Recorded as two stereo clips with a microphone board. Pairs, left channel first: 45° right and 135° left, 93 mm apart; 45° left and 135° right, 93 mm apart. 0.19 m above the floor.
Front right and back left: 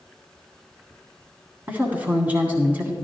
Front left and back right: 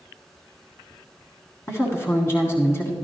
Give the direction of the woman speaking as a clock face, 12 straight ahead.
9 o'clock.